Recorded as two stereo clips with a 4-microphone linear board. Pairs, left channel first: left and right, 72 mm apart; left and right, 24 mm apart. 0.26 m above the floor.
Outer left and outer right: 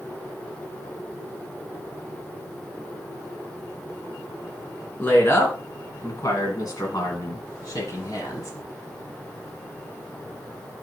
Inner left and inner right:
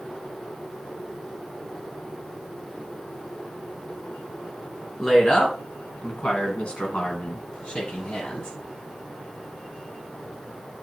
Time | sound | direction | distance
5.0 | a woman speaking | 30° left (ahead or behind) | 3.5 m